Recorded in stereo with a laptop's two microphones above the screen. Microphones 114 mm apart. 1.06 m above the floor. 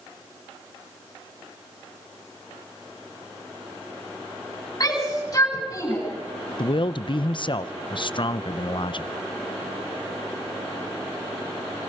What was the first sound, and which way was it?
A shout, 35° left (ahead or behind).